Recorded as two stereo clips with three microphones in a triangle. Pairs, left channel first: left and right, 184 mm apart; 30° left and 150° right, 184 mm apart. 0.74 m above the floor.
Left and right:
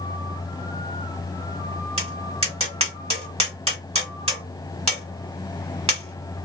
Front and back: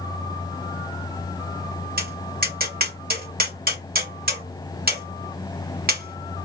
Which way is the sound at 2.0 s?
140° right.